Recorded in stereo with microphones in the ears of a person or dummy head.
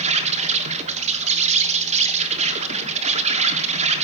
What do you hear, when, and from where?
0.0 s an insect: 35° right (ahead or behind), 1.2 m